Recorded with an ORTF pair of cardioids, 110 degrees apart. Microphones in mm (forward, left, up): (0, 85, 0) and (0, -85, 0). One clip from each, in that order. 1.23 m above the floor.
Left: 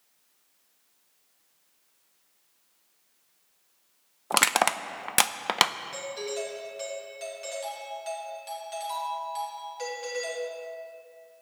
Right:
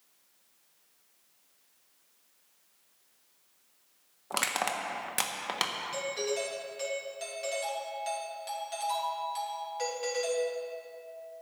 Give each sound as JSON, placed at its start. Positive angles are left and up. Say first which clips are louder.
{"t": 4.3, "sound": "crushing", "louder": "left 8 dB", "azimuth_deg": 40, "distance_m": 0.5}
{"t": 5.9, "sound": "a doorbell", "louder": "right 1 dB", "azimuth_deg": 0, "distance_m": 3.0}